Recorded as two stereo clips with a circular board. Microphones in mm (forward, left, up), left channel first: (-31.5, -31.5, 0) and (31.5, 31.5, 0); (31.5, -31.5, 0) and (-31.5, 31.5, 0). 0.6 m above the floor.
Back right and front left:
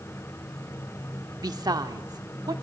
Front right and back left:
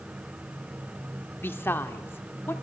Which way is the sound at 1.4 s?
15° left.